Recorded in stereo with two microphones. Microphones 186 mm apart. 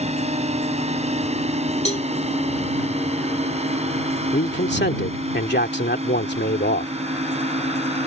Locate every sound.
0.0 s a drone: 35° right (ahead or behind)
1.9 s a cowbell: 35° left (ahead or behind)
4.3 s a man speaking: 65° left (ahead or behind)